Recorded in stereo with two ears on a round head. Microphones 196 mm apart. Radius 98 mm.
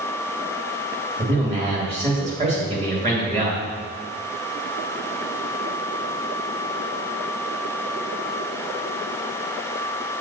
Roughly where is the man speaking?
Right.